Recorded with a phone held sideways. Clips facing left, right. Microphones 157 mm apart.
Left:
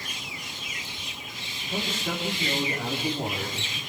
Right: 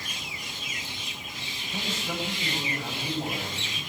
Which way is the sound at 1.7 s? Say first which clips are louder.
Left 3 dB; 55° left (ahead or behind).